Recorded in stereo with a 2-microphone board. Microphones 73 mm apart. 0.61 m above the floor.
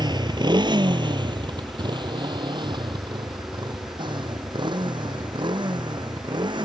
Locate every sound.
0.0 s a motorcycle: 70° right (ahead or behind); by 6.7 s 80° right